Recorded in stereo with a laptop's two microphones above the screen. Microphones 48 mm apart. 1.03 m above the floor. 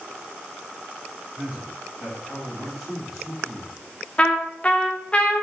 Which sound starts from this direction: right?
A man speaking, at 1.4 s.